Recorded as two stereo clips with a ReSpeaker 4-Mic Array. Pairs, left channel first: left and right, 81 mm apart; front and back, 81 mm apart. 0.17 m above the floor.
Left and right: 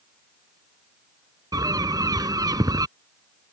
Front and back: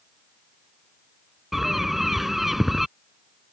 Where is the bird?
95° right.